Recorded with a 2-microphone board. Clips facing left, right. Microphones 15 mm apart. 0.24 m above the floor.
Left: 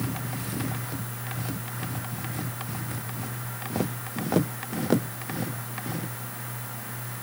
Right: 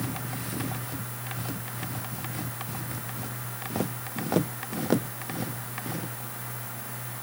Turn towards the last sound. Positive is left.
No sound to turn to.